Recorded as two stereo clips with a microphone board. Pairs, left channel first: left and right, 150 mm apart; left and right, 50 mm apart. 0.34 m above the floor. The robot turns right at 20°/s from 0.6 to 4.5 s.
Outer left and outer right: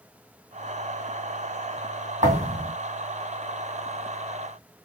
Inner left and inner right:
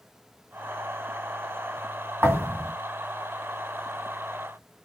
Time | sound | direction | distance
2.2 | a thud | 45° right (ahead or behind) | 2.0 m